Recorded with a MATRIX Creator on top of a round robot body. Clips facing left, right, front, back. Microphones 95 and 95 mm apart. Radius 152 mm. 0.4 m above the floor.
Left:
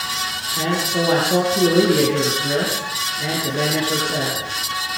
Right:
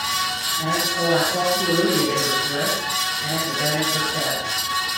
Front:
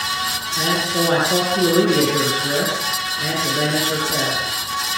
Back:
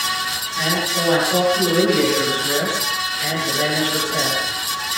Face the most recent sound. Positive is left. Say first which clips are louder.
# left 3 dB, front 2 dB
turn(degrees=60)